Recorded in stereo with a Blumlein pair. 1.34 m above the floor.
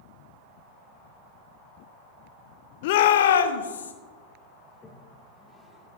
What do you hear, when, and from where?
2.8 s a shout: 50° left, 0.7 m; by 3.9 s 70° left, 1.3 m
4.7 s a toilet flushing: 15° left, 1.2 m